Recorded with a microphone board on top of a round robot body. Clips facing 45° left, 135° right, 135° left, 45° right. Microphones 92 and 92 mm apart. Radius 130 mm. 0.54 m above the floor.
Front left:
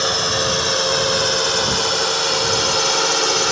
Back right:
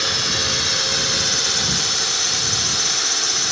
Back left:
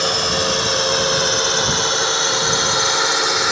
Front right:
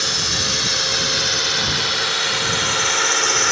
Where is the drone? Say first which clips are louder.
Front left 6 dB, back left 7 dB; 95° left; by 3.5 s 55° left.